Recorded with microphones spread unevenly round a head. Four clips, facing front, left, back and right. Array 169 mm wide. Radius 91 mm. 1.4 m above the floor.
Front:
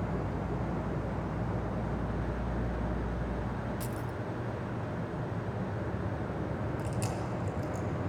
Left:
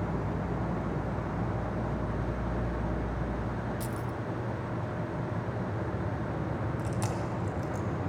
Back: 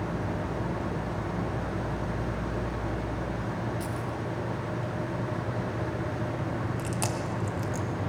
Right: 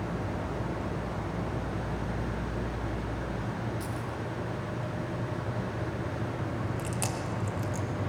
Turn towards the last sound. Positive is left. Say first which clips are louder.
# left 1 dB, back 4 dB
turn(degrees=-175)